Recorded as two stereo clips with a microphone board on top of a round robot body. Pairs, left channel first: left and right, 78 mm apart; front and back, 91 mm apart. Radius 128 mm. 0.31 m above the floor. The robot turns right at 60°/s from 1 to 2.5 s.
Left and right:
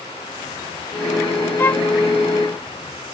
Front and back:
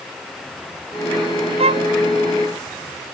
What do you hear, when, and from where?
1.6 s a violin: 155° left; by 1.9 s 175° left